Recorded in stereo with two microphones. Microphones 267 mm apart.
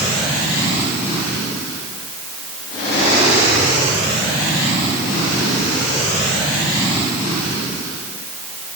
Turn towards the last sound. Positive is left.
No sound to turn to.